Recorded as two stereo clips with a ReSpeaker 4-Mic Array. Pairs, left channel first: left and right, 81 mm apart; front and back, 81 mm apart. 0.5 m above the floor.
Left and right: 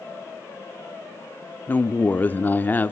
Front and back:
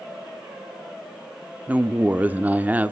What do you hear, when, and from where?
1.7 s a woman speaking: 130° left, 0.7 m